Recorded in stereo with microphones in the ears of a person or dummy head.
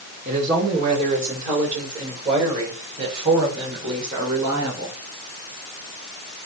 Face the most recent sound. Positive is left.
turn(degrees=-20)  # may be behind; listen again after turning